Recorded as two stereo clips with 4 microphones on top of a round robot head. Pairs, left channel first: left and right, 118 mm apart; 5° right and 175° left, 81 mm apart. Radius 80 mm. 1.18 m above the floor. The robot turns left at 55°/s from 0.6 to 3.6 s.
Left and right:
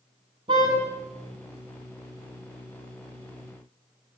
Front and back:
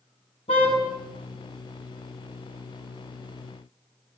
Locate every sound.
0.5 s a car horn: 30° right, 7 m; by 0.8 s 40° right, 7 m